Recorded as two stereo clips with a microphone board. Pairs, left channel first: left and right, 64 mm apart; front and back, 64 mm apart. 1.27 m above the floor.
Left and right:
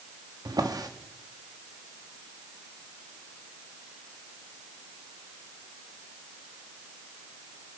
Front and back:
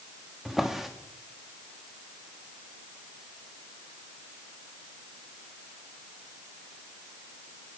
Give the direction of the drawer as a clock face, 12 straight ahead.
3 o'clock.